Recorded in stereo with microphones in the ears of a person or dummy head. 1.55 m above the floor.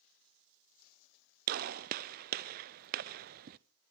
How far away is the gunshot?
About 0.5 m.